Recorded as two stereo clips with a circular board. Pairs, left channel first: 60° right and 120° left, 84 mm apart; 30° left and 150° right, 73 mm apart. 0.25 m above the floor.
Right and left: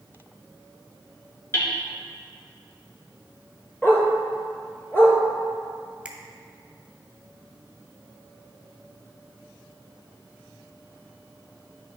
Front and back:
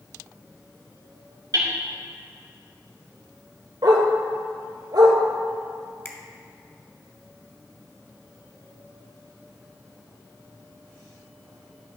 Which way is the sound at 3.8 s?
125° right.